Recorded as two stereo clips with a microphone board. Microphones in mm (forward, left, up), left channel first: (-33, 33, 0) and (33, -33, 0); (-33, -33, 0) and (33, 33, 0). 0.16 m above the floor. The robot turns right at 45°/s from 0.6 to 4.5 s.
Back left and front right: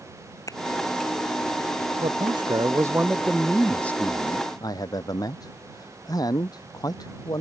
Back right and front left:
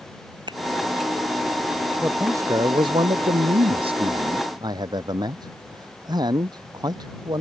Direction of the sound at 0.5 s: 80° left.